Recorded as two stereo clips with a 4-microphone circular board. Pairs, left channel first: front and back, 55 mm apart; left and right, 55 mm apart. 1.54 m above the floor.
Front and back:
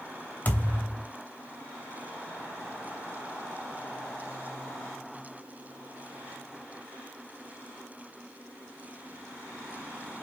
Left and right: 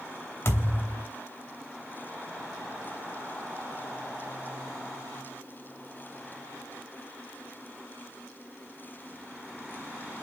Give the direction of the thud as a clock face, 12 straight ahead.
10 o'clock.